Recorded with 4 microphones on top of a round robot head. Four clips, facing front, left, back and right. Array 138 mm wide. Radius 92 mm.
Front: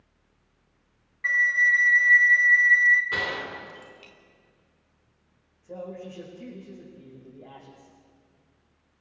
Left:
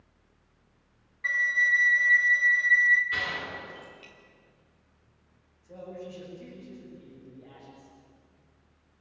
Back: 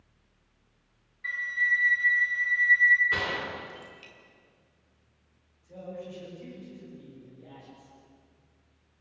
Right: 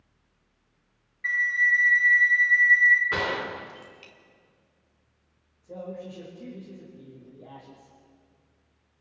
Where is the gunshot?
80° right, 2 m.